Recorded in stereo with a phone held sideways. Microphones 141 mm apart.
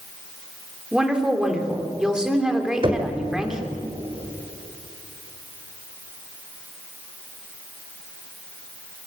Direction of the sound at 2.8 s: 35° right (ahead or behind).